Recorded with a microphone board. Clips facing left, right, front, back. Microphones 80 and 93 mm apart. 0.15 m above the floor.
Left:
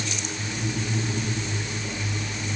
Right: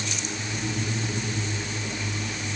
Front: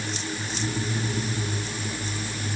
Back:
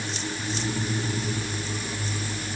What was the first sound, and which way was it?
Only background noise.